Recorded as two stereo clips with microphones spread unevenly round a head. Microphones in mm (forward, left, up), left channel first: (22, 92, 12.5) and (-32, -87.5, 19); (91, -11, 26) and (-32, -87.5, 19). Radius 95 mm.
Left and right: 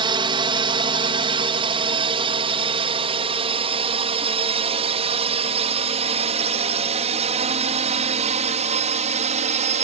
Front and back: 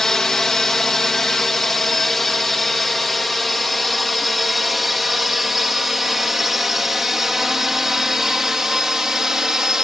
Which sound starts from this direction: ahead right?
A drone, at 0.0 s.